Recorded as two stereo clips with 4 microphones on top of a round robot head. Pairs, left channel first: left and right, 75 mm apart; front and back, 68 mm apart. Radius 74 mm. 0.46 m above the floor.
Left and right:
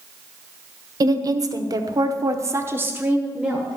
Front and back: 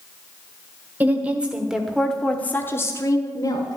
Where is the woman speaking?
115° right, 1.7 m; by 3.8 s 5° right, 1.6 m.